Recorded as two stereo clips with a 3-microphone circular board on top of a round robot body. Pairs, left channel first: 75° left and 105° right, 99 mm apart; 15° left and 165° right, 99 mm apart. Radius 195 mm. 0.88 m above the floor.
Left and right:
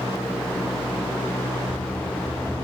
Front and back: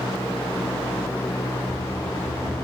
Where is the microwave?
No microwave in this recording.